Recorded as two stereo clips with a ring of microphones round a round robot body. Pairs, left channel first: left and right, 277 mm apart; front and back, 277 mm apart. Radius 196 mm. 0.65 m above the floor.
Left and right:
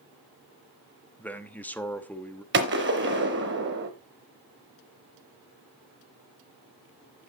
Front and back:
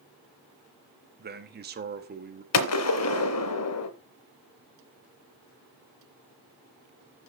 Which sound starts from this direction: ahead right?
A gunshot, at 2.5 s.